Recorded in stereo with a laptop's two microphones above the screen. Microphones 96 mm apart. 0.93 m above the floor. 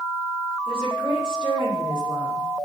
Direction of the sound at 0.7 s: 70° right (ahead or behind).